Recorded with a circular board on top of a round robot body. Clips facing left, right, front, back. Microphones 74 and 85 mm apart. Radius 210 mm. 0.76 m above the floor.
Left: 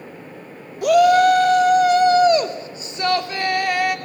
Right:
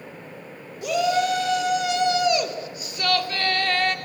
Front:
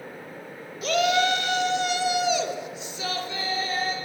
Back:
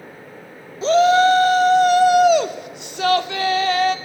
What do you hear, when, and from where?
0.8 s a shout: 120° left, 2.5 m; by 4.0 s 170° left, 2.5 m